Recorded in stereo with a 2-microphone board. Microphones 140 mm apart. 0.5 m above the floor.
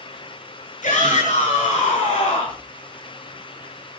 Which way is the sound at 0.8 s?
70° left (ahead or behind).